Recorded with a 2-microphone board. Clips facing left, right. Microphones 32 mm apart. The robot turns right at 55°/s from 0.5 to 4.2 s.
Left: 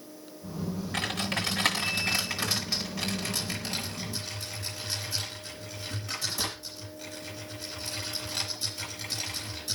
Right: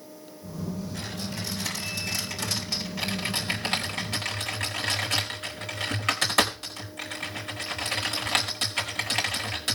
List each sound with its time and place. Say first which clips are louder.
0.9 s typing on a keyboard: left 4 dB; 70° left (ahead or behind), 4.5 m; by 9.8 s 70° right (ahead or behind), 4.5 m